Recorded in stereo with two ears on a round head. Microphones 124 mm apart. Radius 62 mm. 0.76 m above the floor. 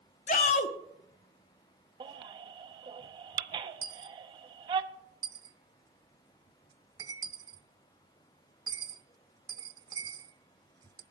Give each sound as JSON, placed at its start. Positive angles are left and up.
{"t": 0.3, "sound": "a shout", "side_deg": 55, "distance_m": 1.1}
{"t": 2.0, "sound": "a baby crying", "side_deg": -30, "distance_m": 0.7}
{"t": 3.8, "sound": "a dropped coin", "side_deg": -25, "distance_m": 0.5}